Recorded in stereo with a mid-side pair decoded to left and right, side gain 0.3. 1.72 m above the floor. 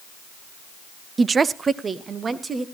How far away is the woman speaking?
About 0.6 m.